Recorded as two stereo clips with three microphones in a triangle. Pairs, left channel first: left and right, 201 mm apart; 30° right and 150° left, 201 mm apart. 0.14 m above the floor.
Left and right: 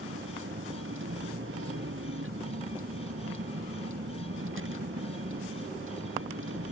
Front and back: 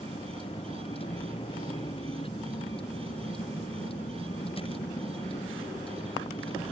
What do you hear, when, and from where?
0.0 s a vehicle: 95° right